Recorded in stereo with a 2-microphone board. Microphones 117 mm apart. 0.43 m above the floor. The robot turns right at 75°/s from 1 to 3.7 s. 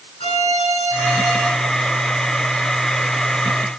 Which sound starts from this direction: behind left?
A violin, at 0.2 s.